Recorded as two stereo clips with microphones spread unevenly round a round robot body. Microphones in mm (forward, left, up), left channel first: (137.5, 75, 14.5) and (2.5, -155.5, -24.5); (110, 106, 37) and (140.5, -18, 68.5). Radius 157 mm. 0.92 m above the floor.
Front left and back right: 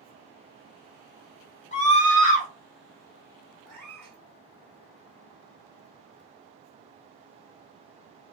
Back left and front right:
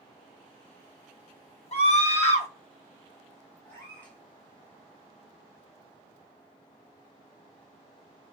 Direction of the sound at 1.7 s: 130° left.